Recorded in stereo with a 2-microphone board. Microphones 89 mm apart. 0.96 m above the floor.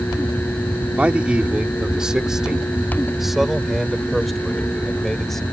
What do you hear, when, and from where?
1.0 s a man speaking: 15° right (ahead or behind); by 5.4 s 5° left (ahead or behind)